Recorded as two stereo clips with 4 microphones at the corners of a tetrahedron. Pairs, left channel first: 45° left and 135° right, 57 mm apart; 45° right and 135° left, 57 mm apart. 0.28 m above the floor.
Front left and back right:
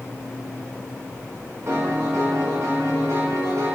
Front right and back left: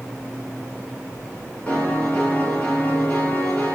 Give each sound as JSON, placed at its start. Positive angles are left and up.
{"t": 1.7, "sound": "a piano", "azimuth_deg": -100, "distance_m": 2.5}